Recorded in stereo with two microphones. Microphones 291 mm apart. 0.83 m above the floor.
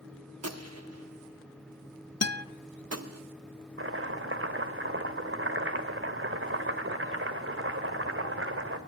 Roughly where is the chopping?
Right.